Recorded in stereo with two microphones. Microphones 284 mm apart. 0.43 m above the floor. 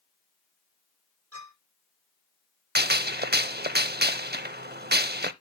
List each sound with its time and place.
1.3 s a clink: 55° right (ahead or behind), 9 m
2.8 s a gunshot: 35° right (ahead or behind), 0.6 m